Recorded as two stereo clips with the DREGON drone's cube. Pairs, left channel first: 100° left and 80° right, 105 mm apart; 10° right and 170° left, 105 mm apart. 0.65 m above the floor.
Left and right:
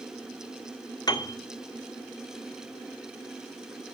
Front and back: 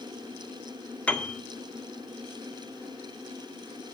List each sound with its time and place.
1.1 s a piano: 65° left, 1.7 m